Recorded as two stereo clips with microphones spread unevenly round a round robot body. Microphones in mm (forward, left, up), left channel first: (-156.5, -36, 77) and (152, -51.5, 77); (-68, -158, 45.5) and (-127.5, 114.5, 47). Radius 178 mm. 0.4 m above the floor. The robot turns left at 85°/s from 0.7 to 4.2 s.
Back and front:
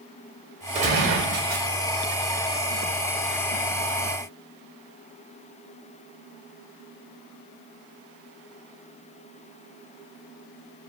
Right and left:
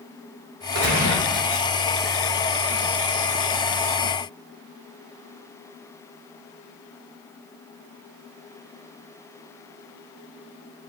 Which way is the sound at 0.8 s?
65° left.